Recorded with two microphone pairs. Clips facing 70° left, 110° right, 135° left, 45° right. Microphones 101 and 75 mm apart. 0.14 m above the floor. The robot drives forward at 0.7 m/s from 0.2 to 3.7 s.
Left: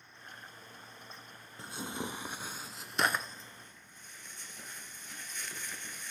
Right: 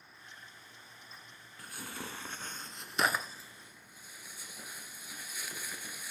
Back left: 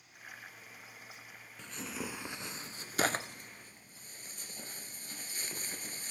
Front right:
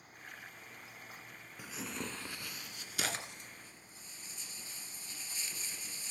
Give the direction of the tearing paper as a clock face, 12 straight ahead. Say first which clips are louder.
Left 5 dB, back left 1 dB; 11 o'clock.